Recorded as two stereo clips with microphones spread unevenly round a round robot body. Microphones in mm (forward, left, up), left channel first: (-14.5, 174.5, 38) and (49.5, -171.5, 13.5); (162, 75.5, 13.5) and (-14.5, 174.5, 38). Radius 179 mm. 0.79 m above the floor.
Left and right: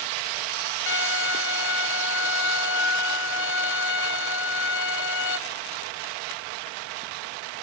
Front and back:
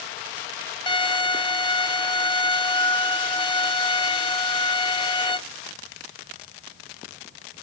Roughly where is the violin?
Ahead left.